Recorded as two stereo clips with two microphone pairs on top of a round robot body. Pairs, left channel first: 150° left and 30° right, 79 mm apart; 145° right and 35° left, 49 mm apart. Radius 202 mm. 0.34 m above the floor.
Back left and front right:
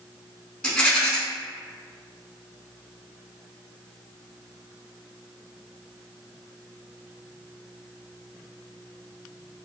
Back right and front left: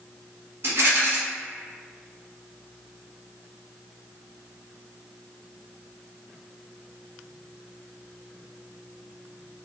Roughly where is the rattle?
Left.